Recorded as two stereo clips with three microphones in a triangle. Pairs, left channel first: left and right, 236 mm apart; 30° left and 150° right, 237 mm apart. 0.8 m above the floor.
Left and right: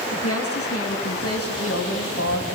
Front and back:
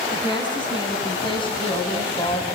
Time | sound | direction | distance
0.1 | a woman speaking | 100° left | 7.5 m